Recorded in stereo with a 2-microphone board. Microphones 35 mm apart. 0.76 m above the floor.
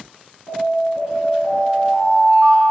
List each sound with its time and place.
0.5 s an alarm: 85° right, 5 m